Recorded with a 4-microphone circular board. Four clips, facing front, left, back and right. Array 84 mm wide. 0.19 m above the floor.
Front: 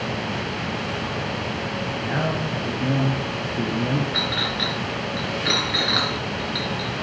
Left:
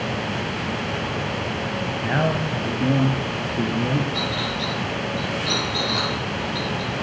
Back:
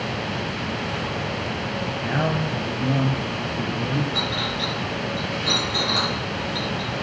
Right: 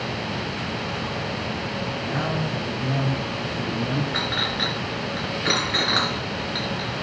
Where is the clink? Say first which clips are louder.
Left 1 dB, even; 65° right, 2 m.